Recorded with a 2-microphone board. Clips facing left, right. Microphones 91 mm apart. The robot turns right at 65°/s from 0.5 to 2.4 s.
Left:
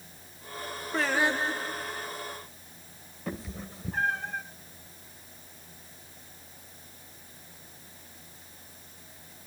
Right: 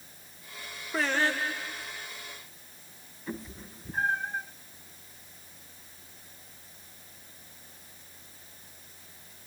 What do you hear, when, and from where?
0.9 s singing: 5° right, 1.3 m; by 2.1 s 70° left, 1.3 m
3.3 s a cat meowing: 85° left, 2.0 m